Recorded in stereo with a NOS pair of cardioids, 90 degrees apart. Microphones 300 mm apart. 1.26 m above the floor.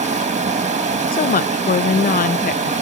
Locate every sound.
0.0 s running water: 25° right, 2.0 m
1.1 s a woman speaking: 30° left, 0.6 m